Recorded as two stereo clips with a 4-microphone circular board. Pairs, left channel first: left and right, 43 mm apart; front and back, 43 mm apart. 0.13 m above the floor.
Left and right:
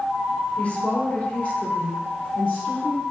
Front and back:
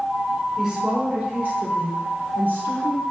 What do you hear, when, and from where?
0.6 s a woman speaking: 115° left, 1.2 m; by 3.0 s 140° left, 3 m